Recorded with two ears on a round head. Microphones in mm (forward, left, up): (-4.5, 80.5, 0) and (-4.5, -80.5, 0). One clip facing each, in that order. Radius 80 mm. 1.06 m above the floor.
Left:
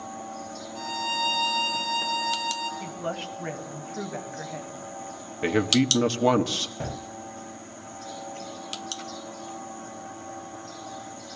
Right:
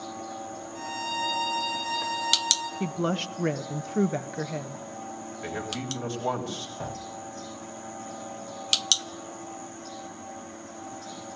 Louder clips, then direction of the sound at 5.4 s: Left 13 dB; 80° left.